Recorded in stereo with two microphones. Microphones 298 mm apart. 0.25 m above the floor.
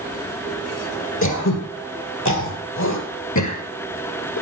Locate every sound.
1.2 s throat clearing: 75° left (ahead or behind), 1.9 m